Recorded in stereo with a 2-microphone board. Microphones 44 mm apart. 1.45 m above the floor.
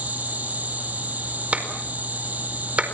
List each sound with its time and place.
0.0 s an insect: 35° right (ahead or behind), 9.5 m
1.5 s a clap: 30° right (ahead or behind), 4.5 m